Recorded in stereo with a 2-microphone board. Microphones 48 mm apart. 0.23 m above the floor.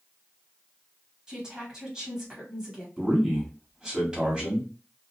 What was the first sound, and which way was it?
A woman speaking, 15° right (ahead or behind).